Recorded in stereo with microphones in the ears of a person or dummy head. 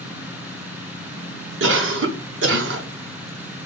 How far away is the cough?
About 0.8 m.